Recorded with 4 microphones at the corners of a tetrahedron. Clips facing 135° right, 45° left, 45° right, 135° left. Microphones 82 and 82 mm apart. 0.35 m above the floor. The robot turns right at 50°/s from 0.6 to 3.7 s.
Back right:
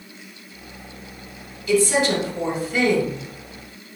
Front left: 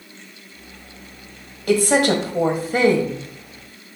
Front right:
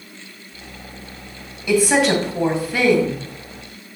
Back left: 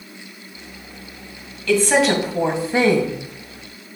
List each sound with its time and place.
1.7 s a woman speaking: 30° left, 1.9 m; by 3.2 s 100° left, 1.9 m